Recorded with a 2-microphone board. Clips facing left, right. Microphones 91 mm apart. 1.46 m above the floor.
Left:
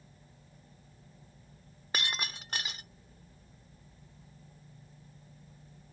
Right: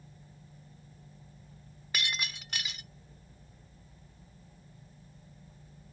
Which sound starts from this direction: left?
Breaking glass, at 1.9 s.